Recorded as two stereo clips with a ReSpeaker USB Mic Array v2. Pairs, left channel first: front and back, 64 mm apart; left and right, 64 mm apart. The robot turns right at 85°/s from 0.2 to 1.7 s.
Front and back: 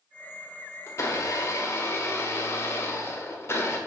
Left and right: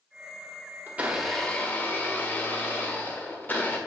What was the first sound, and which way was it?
A blender, 35° right.